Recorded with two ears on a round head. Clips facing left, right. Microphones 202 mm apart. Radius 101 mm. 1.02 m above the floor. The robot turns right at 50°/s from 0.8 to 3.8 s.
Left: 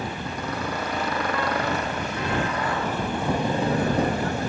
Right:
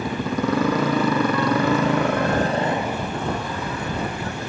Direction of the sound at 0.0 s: 65° right (ahead or behind).